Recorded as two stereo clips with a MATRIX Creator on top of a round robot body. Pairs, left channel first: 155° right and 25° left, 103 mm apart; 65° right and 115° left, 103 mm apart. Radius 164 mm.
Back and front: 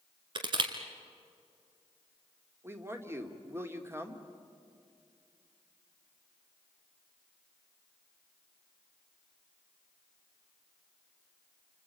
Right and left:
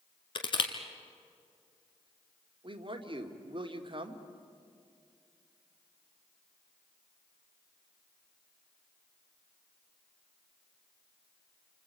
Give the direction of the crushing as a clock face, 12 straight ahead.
1 o'clock.